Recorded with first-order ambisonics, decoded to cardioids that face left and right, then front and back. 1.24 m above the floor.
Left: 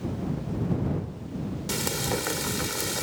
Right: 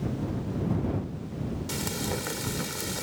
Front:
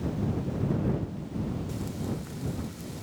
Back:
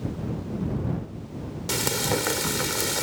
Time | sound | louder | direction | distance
1.7 | frying | left 5 dB, back 12 dB | 165° left | ?